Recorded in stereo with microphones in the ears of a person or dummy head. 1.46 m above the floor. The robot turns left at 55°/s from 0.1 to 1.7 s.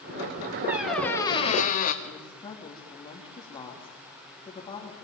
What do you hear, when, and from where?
0.7 s a squeak: 170° right, 2 m; by 1.9 s 135° left, 2 m
2.0 s a woman speaking: 25° left (ahead or behind), 3 m